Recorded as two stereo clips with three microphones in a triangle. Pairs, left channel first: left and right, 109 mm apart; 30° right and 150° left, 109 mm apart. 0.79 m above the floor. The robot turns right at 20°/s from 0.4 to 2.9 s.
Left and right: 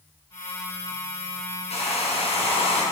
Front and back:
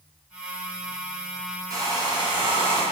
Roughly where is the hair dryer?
Left.